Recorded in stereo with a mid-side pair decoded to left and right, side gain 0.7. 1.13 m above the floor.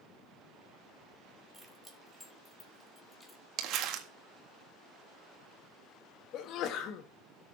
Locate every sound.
1.5 s keys jangling: 5° right, 2.5 m; by 3.4 s 20° left, 2.5 m
3.6 s crumpling: 55° right, 1.6 m
6.3 s a sneeze: 55° left, 1.4 m